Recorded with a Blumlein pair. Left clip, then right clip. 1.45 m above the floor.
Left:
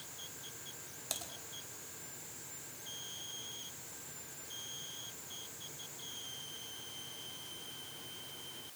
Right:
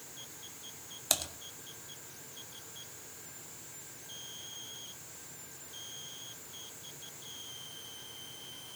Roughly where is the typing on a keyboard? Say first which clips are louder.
Right 10 dB; ahead right.